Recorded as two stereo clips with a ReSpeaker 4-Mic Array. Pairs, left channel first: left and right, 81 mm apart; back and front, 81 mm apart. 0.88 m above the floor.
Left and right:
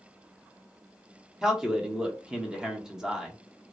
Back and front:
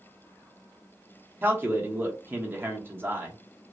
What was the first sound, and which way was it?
A man speaking, 20° right.